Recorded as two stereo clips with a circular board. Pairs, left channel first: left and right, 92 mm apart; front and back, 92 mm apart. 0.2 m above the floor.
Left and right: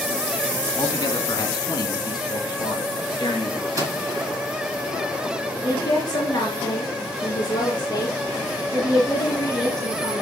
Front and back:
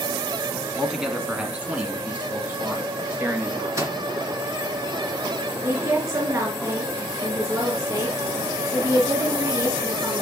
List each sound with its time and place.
0.8 s a man speaking: 95° left, 1.7 m; by 3.7 s 120° left, 3.5 m
3.8 s a microwave: 135° right, 2 m
5.6 s a woman speaking: 125° left, 3 m